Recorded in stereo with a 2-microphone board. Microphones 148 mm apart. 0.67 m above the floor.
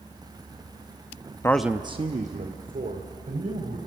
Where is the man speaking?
20° left (ahead or behind), 0.6 m; by 3.8 s 75° right (ahead or behind), 3 m.